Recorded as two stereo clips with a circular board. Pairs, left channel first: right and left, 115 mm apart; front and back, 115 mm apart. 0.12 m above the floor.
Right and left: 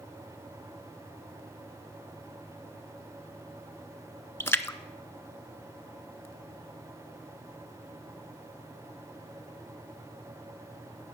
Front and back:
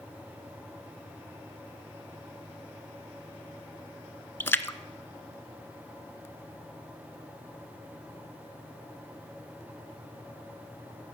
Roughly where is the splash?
Ahead right.